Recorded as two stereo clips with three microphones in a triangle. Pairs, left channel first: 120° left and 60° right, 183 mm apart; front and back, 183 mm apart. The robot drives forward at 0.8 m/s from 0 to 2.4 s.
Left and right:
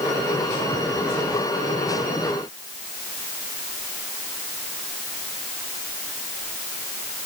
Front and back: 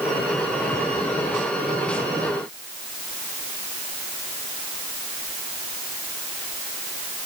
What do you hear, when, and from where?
Only background noise.